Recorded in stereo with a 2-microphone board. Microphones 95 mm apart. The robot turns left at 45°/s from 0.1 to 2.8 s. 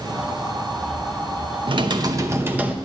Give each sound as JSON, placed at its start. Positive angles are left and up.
{"t": 1.7, "sound": "typing on a keyboard", "azimuth_deg": -120, "distance_m": 0.6}